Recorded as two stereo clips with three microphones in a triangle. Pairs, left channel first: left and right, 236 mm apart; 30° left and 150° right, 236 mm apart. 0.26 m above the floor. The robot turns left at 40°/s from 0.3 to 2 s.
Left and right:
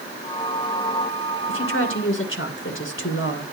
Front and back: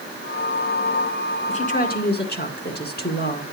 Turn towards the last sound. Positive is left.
turn(degrees=70)